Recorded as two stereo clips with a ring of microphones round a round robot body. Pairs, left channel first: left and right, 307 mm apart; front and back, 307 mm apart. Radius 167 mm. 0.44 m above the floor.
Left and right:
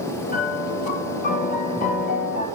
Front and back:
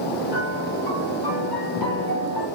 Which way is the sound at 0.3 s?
25° left.